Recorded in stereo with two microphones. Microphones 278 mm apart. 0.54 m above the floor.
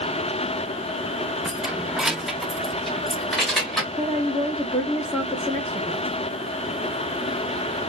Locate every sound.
1.4 s keys jangling: 5° right (ahead or behind), 0.7 m; by 3.8 s centre (ahead or behind), 1.8 m
3.9 s a woman speaking: 10° left (ahead or behind), 0.7 m